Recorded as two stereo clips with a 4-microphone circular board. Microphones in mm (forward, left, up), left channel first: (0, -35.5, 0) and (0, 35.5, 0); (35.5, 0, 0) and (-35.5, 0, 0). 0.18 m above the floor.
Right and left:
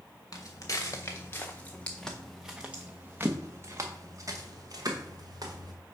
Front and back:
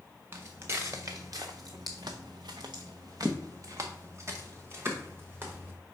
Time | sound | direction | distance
0.3 | footsteps | 125° right | 1.5 m